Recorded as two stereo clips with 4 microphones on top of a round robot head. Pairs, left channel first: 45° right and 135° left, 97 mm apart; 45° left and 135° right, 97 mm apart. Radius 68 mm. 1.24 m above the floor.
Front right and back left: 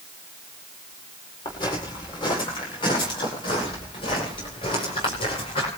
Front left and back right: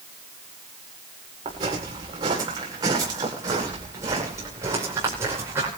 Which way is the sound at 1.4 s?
90° right.